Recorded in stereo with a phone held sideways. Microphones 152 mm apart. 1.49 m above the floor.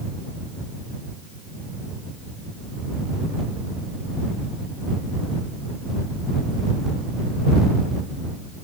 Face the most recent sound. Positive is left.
No sound to turn to.